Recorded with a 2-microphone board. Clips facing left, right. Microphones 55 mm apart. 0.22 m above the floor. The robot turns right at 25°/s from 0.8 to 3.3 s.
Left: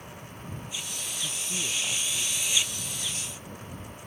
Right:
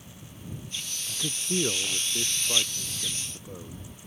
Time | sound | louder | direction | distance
1.1 | a man speaking | right 7 dB | 95° right | ?